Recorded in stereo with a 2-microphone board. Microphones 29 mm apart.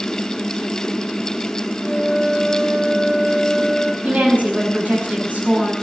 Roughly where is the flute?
Centre.